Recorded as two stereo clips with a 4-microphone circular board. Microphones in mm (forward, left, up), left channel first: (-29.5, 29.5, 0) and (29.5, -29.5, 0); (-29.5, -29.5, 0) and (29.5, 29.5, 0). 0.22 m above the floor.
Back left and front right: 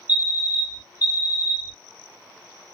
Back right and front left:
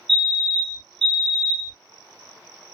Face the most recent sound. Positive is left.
turn(degrees=140)